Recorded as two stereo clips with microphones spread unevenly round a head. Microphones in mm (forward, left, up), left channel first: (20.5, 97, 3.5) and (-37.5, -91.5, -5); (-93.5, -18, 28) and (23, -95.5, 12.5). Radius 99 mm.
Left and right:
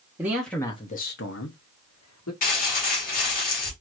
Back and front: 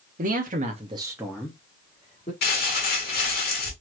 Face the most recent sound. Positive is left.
turn(degrees=120)